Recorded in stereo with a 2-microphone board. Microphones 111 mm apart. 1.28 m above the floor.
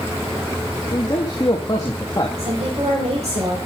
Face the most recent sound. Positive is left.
turn(degrees=-85)